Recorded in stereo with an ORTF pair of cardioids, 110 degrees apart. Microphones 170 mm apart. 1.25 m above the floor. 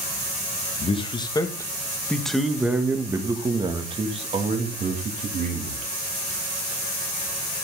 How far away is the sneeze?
No sneeze in this recording.